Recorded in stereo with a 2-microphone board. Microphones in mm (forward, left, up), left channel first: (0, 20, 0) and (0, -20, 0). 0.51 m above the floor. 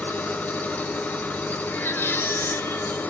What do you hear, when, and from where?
0.0 s an engine running: 45° left (ahead or behind), 0.8 m
1.7 s a baby crying: 75° left (ahead or behind), 0.7 m